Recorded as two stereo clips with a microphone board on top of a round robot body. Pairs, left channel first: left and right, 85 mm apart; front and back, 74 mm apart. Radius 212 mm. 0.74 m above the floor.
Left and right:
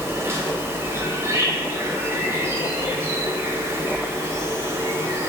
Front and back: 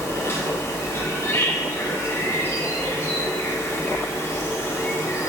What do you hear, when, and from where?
0.0 s an insect: 40° right, 0.7 m